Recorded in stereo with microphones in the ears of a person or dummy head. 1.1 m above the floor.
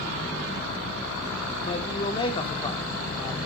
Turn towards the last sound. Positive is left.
turn(degrees=25)  # may be behind; listen again after turning